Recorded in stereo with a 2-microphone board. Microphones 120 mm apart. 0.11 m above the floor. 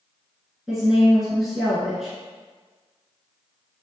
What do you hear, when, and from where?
0.7 s a woman speaking: 5° right (ahead or behind), 1.2 m